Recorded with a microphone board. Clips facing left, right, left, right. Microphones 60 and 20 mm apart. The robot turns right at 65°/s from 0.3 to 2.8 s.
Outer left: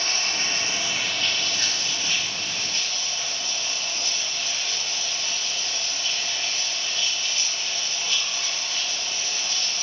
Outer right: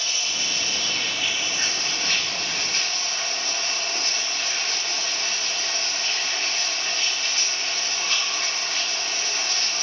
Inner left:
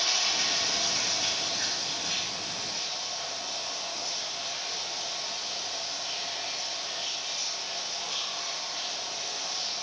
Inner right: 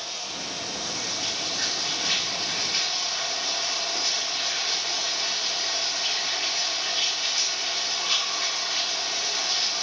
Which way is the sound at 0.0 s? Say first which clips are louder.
Outer left 2 dB, inner left 6 dB; 125° left.